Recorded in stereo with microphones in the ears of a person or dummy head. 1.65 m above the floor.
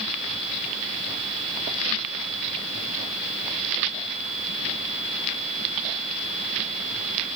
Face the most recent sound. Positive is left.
No sound to turn to.